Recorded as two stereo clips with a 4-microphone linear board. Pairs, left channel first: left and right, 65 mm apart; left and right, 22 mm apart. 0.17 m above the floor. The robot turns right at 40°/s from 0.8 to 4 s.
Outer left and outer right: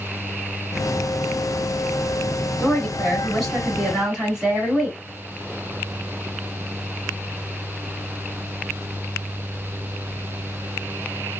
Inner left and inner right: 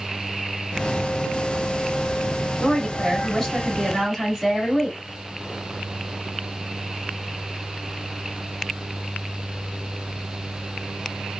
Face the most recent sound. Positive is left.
turn(degrees=-160)